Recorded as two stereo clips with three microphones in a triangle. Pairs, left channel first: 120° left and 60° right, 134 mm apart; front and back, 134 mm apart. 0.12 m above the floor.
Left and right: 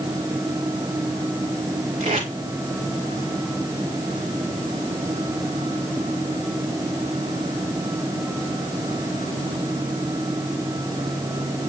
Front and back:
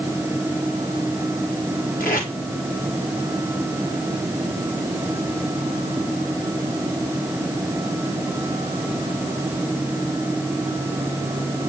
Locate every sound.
2.0 s tape being pulled: 15° right, 4 m